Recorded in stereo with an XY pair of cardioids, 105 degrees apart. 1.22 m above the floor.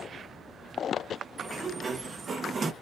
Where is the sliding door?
40° right, 1.1 m.